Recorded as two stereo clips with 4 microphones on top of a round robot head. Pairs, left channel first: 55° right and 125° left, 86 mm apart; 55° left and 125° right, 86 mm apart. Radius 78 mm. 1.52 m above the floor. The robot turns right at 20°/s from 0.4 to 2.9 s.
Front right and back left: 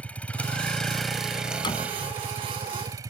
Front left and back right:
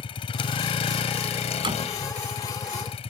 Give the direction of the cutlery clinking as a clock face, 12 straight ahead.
I don't hear cutlery clinking.